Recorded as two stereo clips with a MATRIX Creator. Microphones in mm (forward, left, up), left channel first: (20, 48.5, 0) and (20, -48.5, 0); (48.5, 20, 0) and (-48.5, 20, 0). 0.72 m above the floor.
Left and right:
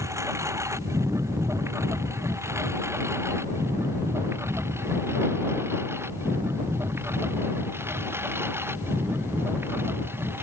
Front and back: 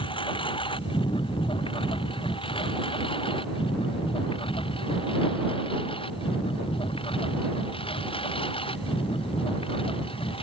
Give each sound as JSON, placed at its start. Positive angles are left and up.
{"t": 0.0, "sound": "a lawn mower", "azimuth_deg": -30}